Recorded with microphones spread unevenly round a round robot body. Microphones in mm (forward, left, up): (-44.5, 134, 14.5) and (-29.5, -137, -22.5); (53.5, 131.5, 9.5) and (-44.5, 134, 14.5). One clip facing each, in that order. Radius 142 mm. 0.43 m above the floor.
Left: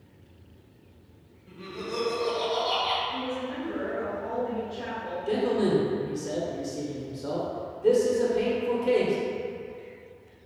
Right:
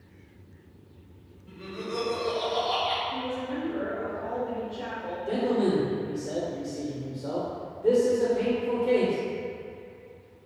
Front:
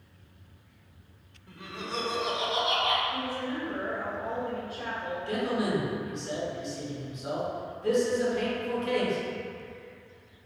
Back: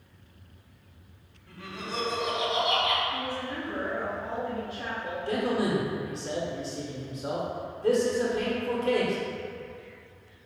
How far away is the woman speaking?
About 1.4 m.